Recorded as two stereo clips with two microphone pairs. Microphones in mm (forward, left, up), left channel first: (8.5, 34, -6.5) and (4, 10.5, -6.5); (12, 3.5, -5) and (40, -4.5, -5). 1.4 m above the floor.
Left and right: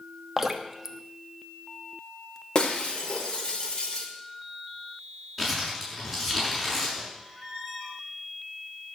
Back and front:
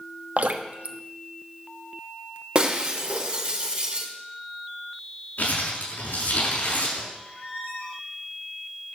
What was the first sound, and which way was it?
Dripping, 20° right.